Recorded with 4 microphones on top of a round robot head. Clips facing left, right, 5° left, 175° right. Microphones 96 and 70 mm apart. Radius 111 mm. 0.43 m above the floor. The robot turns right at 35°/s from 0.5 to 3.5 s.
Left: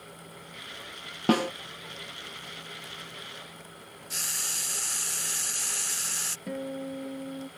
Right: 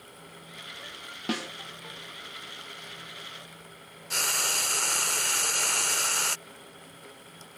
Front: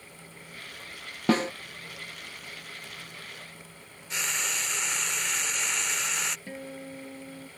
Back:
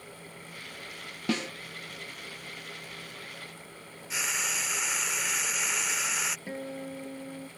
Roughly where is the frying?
Right.